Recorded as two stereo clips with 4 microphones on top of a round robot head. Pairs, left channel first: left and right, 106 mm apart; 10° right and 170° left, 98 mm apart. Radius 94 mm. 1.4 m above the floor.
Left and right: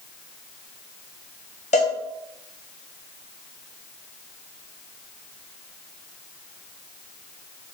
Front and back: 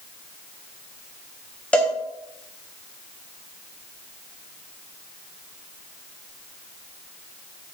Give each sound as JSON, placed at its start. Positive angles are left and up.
{"t": 1.7, "sound": "a cowbell", "azimuth_deg": 65, "distance_m": 0.7}